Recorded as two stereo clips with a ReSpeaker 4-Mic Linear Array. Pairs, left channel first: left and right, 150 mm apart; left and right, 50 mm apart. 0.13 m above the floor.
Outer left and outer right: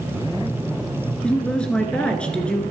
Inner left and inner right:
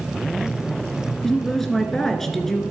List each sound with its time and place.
1.2 s a woman speaking: 5° left (ahead or behind), 2 m